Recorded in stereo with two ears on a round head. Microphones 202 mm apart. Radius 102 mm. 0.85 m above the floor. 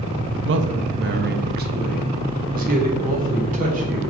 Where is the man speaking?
55° right (ahead or behind), 0.6 m; by 4.0 s 40° right (ahead or behind), 2.5 m.